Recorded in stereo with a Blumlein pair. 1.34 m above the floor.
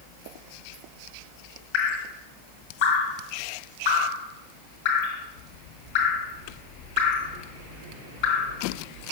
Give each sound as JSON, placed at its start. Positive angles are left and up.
{"t": 1.7, "sound": "dripping", "azimuth_deg": 50, "distance_m": 1.7}